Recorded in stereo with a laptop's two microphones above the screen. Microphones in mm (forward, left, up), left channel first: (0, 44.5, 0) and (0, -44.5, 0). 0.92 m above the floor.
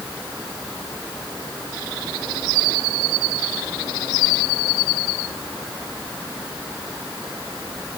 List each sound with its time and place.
Only background noise.